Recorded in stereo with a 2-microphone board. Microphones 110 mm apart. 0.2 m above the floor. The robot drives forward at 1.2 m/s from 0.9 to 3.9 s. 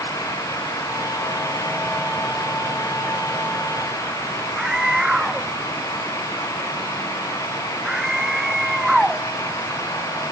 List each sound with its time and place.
4.6 s a scream: 5° right (ahead or behind)